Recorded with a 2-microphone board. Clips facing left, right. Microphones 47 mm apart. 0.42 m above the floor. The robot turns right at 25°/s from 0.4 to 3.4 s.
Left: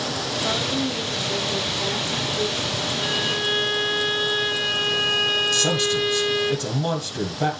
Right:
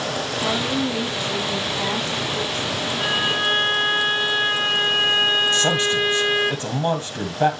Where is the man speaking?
25° right (ahead or behind), 1.7 m.